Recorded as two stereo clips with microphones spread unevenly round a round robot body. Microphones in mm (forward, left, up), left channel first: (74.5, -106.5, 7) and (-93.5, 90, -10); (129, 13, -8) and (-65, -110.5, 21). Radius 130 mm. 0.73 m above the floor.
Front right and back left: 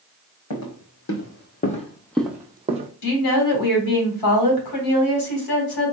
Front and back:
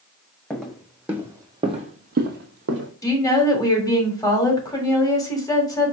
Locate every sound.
0.5 s footsteps: 55° right, 1.7 m; by 2.9 s 170° right, 1.3 m
3.0 s a woman speaking: 40° right, 2 m